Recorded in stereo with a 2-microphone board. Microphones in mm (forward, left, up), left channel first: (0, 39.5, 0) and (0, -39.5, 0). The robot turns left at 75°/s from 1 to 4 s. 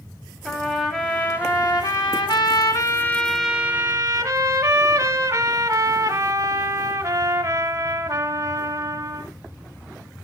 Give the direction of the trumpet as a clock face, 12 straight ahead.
6 o'clock.